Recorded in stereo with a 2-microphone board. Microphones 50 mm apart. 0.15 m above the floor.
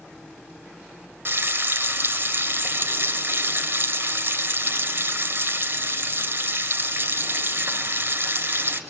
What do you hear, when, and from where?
1.2 s frying: 50° right (ahead or behind), 2.5 m